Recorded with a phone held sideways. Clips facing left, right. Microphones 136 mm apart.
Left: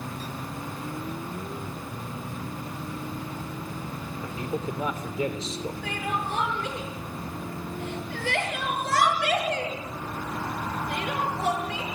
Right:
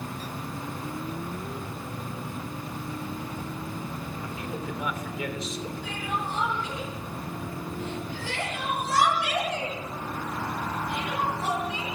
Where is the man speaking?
30° left (ahead or behind), 3.5 m.